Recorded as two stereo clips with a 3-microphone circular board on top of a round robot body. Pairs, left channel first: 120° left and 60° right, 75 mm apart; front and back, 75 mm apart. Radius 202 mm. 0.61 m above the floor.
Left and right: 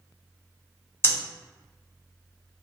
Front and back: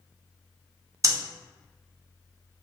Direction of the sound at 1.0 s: 165° left.